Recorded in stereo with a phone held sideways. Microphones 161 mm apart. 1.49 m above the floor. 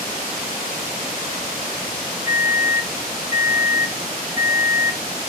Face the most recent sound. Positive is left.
turn(degrees=-20)  # may be behind; listen again after turning